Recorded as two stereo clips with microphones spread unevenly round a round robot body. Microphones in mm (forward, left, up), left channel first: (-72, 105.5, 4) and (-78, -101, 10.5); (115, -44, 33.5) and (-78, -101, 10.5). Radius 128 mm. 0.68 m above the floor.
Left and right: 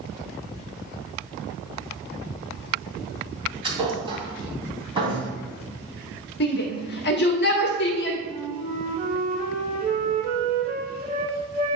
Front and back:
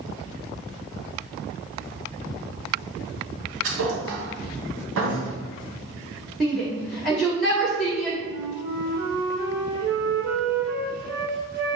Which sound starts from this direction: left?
A shout, at 6.4 s.